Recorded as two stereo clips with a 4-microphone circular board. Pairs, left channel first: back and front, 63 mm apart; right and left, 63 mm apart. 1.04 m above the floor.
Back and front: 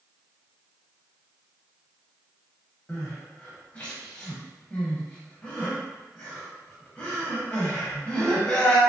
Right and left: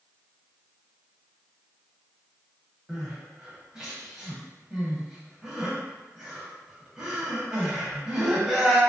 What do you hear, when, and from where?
2.9 s crying: 150° left, 0.9 m